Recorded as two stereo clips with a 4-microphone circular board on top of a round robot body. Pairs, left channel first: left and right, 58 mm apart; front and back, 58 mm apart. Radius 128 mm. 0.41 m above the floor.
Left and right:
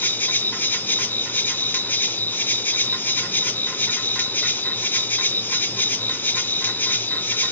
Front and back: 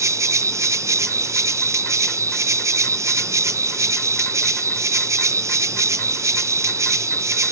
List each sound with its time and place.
0.0 s an insect: 145° left, 0.8 m